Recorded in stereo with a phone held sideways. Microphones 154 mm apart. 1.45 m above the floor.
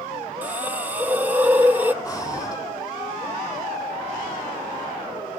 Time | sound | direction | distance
0.4 | a hiss | 10° right (ahead or behind) | 0.9 m
2.0 | breathing | 25° left (ahead or behind) | 3 m